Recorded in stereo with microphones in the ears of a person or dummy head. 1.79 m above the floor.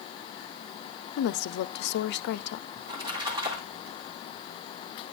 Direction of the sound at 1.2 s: 55° left (ahead or behind).